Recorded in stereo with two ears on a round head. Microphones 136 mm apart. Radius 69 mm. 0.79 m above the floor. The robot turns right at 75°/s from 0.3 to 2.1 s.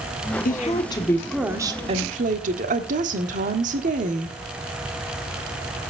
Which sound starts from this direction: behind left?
A woman speaking, at 0.5 s.